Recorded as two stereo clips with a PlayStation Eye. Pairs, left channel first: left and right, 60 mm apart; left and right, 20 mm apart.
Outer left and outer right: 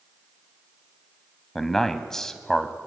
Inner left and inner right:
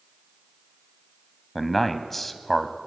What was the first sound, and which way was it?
A man speaking, 5° left (ahead or behind).